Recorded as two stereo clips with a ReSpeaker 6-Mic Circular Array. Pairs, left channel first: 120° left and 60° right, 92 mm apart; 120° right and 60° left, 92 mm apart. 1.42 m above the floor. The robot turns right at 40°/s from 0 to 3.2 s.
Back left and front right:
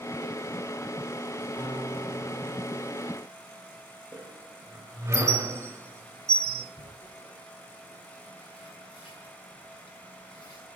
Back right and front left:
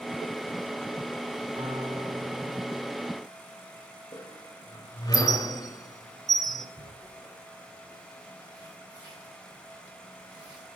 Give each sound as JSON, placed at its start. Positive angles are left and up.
{"t": 1.6, "sound": "a guitar", "azimuth_deg": 10, "distance_m": 6.0}
{"t": 4.1, "sound": "a squeak", "azimuth_deg": -95, "distance_m": 1.8}
{"t": 6.8, "sound": "tearing paper", "azimuth_deg": 105, "distance_m": 7.0}